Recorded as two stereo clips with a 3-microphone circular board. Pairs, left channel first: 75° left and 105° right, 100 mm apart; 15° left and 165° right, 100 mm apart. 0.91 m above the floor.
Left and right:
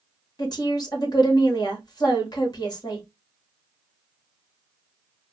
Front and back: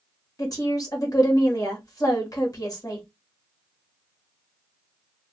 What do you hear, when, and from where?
0.4 s a woman speaking: 50° left, 1.1 m